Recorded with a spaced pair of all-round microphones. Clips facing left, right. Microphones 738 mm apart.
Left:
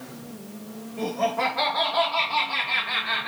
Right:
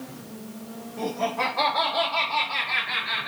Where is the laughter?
Centre (ahead or behind), 0.9 m; by 3.3 s 75° left (ahead or behind), 0.9 m.